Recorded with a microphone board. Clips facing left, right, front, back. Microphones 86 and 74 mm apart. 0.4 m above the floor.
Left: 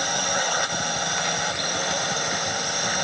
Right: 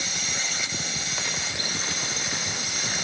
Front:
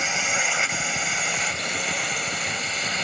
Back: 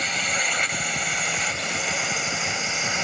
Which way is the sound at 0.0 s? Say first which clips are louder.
Left 9 dB, front 1 dB; 80° left.